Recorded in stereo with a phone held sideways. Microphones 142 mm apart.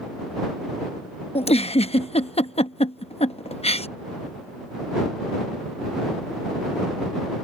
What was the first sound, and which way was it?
A giggle, 45° left (ahead or behind).